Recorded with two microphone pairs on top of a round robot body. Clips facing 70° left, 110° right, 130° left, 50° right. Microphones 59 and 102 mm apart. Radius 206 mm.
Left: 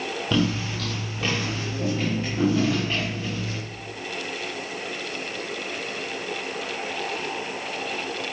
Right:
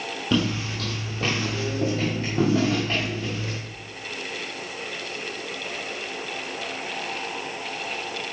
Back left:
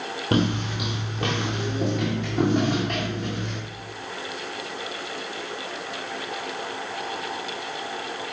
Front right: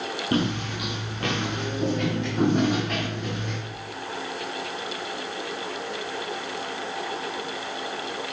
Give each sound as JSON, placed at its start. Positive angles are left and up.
{"t": 0.3, "sound": "footsteps", "azimuth_deg": 175, "distance_m": 1.3}